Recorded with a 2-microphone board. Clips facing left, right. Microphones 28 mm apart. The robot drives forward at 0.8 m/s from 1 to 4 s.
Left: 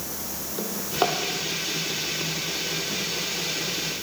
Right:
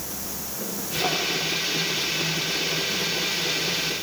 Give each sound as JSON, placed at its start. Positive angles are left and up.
{"t": 0.6, "sound": "a drawer", "side_deg": 80, "distance_m": 8.0}